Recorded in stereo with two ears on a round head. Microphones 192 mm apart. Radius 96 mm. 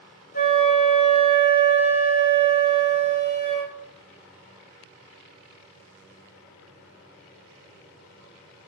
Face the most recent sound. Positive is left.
turn(degrees=40)  # may be behind; listen again after turning